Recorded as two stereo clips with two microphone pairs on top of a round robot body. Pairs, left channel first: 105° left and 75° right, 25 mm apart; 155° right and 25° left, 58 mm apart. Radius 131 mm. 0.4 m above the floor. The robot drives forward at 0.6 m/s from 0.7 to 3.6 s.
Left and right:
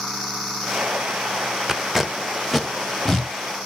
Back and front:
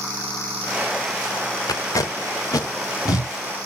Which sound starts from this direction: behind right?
Tape being pulled, at 1.7 s.